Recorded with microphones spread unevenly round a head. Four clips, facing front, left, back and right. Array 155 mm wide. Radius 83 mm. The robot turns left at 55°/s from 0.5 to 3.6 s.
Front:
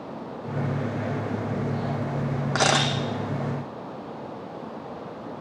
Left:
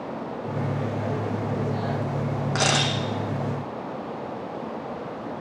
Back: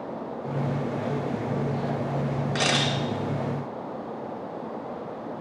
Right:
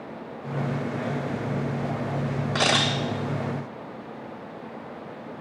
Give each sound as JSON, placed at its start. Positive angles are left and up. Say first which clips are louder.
{"t": 2.5, "sound": "a camera shutter", "louder": "right 1 dB, front 5 dB", "azimuth_deg": 15, "distance_m": 0.9}